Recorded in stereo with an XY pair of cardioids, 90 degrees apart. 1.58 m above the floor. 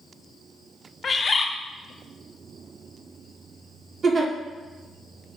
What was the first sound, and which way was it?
A bird, 40° left.